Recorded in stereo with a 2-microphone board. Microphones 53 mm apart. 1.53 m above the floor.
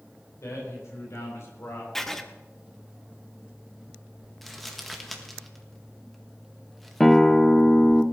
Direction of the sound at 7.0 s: 5° left (ahead or behind).